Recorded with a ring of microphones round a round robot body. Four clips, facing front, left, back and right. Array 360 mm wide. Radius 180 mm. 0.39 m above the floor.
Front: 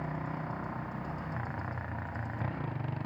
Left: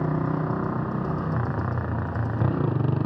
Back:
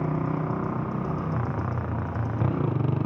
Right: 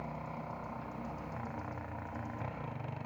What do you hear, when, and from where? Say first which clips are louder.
0.0 s a motorcycle: left 16 dB, back 10 dB; 125° left; by 3.1 s 130° left